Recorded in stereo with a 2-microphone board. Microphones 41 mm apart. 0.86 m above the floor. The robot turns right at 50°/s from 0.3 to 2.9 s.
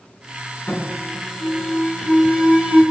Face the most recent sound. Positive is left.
turn(degrees=-135)